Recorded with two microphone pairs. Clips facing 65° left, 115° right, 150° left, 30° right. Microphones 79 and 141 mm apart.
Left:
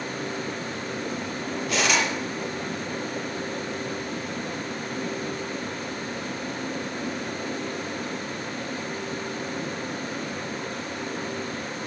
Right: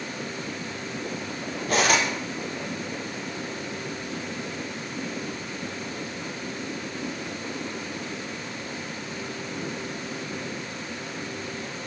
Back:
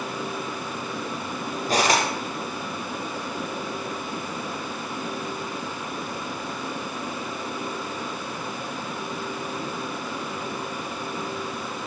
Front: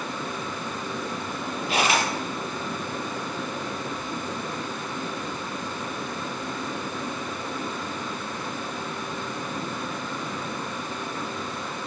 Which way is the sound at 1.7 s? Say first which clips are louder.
Right 2 dB, back 2 dB; 165° right.